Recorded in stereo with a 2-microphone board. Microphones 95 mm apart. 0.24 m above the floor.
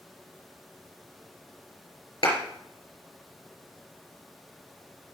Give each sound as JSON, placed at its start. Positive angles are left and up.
{"t": 2.2, "sound": "a clap", "side_deg": 75, "distance_m": 3.5}